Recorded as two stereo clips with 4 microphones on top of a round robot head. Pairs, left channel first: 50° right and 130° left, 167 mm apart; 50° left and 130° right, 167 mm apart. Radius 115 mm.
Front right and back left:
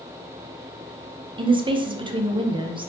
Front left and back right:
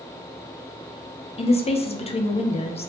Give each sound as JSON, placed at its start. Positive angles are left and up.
{"t": 1.4, "sound": "a woman speaking", "azimuth_deg": 85, "distance_m": 0.7}